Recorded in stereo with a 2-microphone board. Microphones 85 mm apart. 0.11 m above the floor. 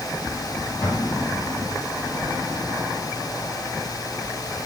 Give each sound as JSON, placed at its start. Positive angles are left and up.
{"t": 0.8, "sound": "an explosion", "side_deg": 20, "distance_m": 3.0}